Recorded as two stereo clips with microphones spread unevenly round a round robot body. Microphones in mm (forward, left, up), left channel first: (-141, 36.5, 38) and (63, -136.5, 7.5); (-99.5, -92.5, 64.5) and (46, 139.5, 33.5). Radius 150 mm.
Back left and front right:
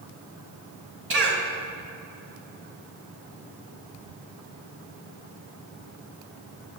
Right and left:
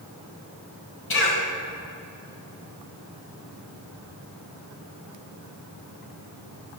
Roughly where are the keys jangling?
No keys jangling in this recording.